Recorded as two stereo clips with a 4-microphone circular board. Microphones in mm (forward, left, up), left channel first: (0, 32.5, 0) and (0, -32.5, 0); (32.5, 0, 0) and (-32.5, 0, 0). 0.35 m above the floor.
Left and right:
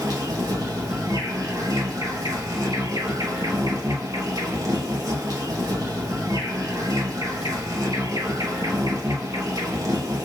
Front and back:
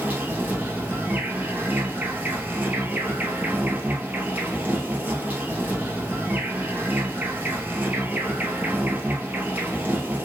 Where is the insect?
115° right, 1.5 m.